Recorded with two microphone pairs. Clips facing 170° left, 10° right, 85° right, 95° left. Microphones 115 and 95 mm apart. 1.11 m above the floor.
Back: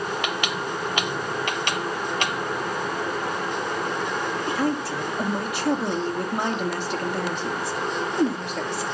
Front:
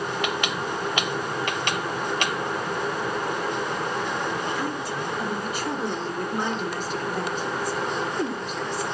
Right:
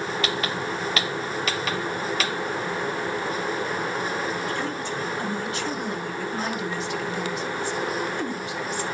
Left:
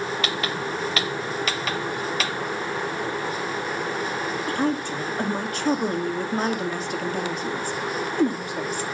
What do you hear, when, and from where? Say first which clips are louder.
4.5 s a woman speaking: back 4 dB, left 4 dB; 145° left, 2.5 m